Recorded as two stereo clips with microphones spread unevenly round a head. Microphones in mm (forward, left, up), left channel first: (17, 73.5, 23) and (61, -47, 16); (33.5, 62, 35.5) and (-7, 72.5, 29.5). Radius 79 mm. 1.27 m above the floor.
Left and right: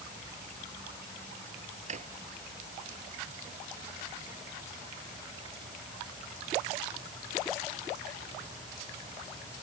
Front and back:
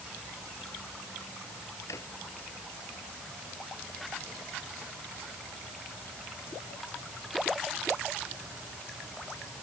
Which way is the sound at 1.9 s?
40° right.